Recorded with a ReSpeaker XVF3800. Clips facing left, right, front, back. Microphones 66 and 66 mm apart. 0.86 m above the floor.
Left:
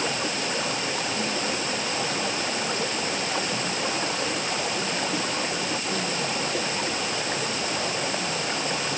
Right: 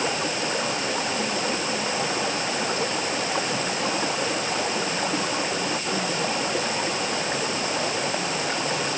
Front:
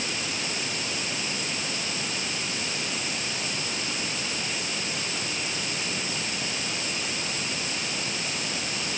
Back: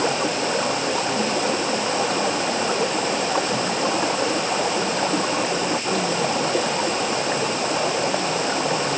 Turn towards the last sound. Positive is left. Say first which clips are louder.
# right 2 dB, back 11 dB
turn(degrees=-170)